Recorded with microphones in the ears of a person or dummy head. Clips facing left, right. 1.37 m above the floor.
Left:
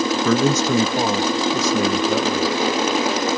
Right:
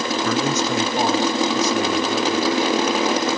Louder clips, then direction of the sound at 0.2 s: Left 4 dB; 75° left (ahead or behind).